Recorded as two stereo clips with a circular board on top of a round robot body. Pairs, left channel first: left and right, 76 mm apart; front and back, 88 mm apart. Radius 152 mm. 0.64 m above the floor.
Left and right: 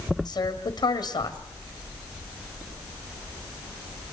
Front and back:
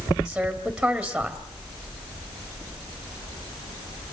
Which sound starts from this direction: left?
A woman speaking, at 0.2 s.